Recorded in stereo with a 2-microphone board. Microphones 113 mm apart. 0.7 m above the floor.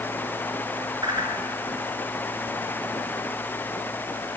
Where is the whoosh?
40° right (ahead or behind), 3 m.